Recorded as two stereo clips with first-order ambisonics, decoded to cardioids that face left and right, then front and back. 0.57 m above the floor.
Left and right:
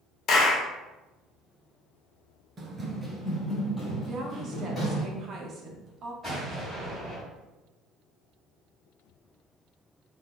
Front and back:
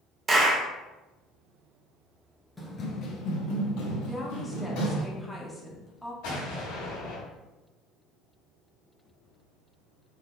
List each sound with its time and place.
0.3 s a clap: 120° left, 0.6 m
2.6 s running footsteps: 75° right, 0.5 m; by 5.0 s 20° left, 2 m
4.0 s a woman speaking: 80° right, 0.6 m
6.2 s an explosion: straight ahead, 1.5 m